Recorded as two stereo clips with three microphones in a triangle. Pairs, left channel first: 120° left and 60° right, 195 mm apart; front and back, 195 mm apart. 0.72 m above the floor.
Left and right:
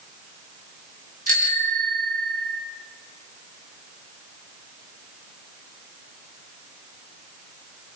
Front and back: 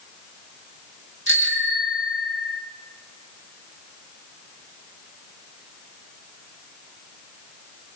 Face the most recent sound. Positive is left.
turn(degrees=-15)